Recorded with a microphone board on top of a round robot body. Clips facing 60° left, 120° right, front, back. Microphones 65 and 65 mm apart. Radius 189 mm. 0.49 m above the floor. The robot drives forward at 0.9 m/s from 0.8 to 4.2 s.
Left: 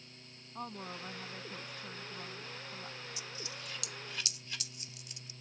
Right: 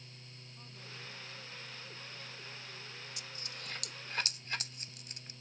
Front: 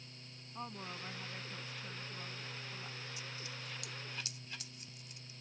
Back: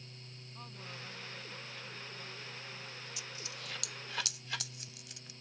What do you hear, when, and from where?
0.6 s a woman speaking: 65° left; by 3.0 s 80° left
3.2 s a dropped coin: 160° right; by 5.3 s 170° right